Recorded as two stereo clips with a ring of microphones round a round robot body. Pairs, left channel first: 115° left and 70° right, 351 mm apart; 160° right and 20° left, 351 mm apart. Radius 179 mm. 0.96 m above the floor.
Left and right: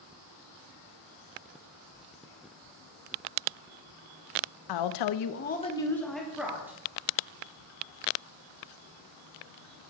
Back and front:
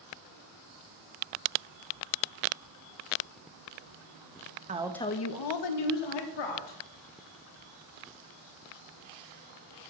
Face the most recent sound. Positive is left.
turn(degrees=-150)